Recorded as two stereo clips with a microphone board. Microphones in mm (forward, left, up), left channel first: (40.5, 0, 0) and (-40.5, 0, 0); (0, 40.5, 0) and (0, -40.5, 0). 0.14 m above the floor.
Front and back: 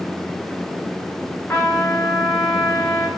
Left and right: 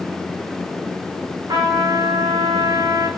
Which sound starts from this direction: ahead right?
A trumpet, at 1.5 s.